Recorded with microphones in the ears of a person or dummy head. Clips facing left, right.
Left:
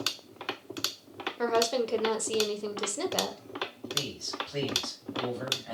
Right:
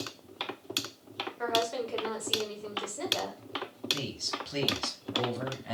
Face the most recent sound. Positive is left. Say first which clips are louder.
# right 1 dB
turn(degrees=-55)  # may be behind; listen again after turning